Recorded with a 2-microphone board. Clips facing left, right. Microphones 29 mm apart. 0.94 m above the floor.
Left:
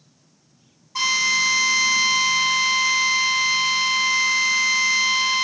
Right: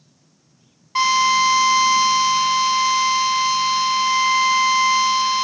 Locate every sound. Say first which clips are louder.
0.9 s a drill: right 4 dB; 60° right (ahead or behind), 1.7 m